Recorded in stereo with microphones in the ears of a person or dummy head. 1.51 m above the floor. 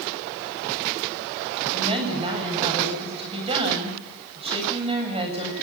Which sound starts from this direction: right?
A woman speaking, at 1.6 s.